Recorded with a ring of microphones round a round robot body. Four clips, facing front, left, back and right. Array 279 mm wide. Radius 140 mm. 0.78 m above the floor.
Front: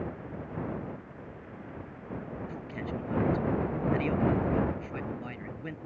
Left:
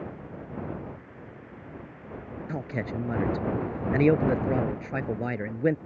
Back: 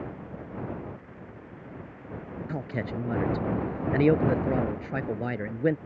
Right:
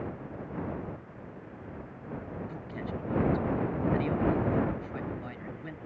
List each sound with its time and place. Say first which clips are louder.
2.5 s a man speaking: left 5 dB, back 8 dB; 130° left